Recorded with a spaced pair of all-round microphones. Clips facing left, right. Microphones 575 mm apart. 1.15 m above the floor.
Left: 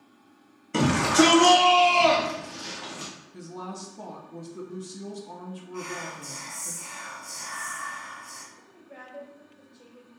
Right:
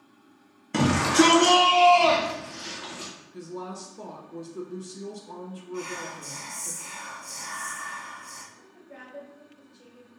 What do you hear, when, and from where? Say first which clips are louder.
0.7 s a shout: even; 20° right (ahead or behind), 0.7 m; by 3.1 s 65° left (ahead or behind), 1.6 m
3.3 s a woman speaking: right 3 dB; 10° left (ahead or behind), 0.7 m
5.7 s whispering: right 3 dB; 55° right (ahead or behind), 1.2 m
8.5 s a woman speaking: right 1 dB; 25° right (ahead or behind), 1.0 m